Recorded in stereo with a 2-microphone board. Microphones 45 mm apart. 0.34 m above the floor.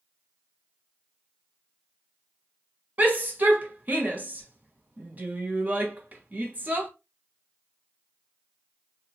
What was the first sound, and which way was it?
A shout, 35° right (ahead or behind).